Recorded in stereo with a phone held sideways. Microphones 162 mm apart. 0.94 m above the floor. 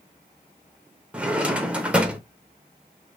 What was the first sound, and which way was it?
A drawer, 10° right (ahead or behind).